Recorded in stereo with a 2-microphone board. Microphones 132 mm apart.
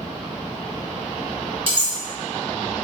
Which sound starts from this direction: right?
Cutlery clinking, at 1.7 s.